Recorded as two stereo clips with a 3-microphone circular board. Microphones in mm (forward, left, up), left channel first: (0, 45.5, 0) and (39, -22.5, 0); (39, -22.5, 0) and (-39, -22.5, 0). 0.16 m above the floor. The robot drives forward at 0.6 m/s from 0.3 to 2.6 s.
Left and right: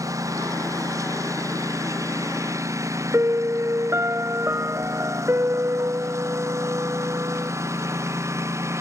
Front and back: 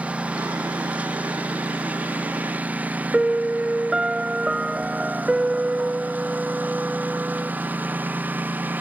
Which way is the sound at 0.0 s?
105° right.